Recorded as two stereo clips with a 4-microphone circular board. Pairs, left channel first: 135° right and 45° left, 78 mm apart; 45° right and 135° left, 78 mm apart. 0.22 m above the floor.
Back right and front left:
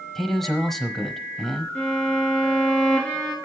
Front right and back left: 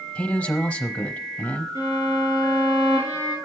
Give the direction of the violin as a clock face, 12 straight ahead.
7 o'clock.